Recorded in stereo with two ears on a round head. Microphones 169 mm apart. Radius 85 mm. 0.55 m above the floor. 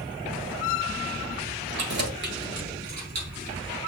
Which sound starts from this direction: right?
Keys jangling, at 1.8 s.